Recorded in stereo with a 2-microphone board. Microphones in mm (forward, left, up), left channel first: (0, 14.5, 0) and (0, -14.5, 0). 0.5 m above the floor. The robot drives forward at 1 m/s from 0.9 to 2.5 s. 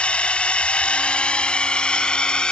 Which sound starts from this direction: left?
A drone, at 0.0 s.